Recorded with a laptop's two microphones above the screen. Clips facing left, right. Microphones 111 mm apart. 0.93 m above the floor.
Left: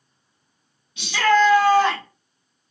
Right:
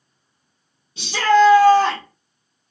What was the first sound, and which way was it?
A shout, 30° right (ahead or behind).